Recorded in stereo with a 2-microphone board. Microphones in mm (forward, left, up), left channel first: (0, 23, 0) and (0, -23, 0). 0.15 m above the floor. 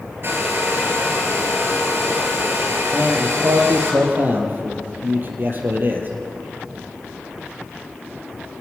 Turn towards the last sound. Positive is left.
turn(degrees=-45)  # may be behind; listen again after turning